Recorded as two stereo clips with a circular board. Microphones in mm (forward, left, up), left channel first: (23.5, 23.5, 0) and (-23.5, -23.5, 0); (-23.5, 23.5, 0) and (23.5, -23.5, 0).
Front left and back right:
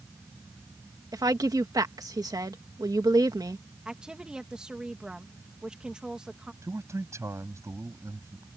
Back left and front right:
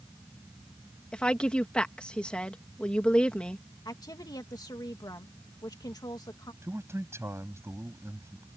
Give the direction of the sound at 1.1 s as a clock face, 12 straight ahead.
5 o'clock.